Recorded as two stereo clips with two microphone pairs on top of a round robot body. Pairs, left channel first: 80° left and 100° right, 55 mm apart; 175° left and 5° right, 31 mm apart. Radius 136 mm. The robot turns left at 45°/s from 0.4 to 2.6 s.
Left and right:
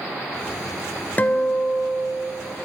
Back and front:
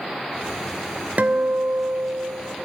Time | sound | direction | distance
1.2 | a guitar | 30° left | 0.9 m